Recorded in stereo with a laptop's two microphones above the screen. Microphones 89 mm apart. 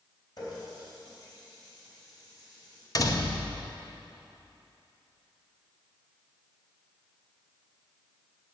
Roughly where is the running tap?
Left.